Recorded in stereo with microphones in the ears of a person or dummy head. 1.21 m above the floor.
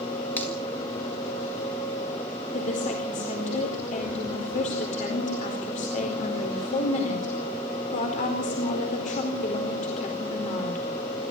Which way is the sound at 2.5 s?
45° left (ahead or behind).